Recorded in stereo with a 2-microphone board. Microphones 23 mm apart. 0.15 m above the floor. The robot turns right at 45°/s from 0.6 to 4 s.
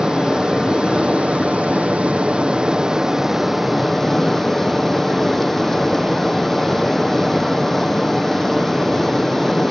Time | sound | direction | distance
0.0 | running water | 140° right | 1.3 m